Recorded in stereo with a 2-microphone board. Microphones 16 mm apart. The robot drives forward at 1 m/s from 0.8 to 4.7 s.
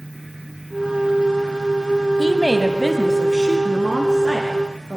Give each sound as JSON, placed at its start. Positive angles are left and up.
{"t": 2.2, "sound": "a woman speaking", "side_deg": -10, "distance_m": 1.0}